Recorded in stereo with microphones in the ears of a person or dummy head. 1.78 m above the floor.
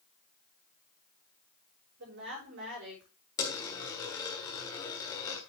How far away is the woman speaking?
About 5.5 m.